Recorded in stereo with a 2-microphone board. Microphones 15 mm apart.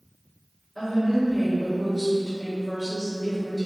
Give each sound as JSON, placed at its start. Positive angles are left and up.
{"t": 0.8, "sound": "a woman speaking", "side_deg": 15, "distance_m": 1.2}